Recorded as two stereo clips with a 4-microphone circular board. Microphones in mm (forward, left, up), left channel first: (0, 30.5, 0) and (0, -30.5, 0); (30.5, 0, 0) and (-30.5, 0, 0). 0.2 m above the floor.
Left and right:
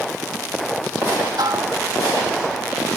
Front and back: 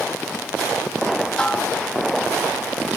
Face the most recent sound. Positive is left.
turn(degrees=-75)